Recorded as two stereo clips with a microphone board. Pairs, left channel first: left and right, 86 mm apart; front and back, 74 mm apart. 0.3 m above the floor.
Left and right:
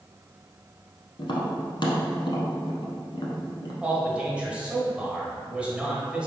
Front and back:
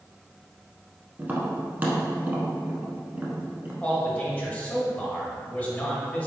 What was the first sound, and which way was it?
Tapping, 115° left.